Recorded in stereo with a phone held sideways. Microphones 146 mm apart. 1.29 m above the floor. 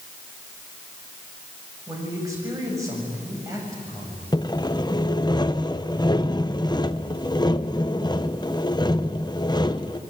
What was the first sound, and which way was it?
A man speaking, 20° right (ahead or behind).